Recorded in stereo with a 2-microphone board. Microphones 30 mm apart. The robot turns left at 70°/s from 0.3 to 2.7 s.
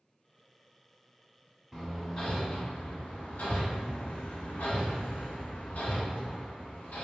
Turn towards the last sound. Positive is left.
turn(degrees=60)  # may be behind; listen again after turning